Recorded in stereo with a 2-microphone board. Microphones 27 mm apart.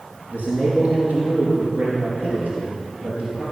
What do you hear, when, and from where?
0.3 s a man speaking: 75° right (ahead or behind), 4 m; by 3.4 s 70° right (ahead or behind), 6 m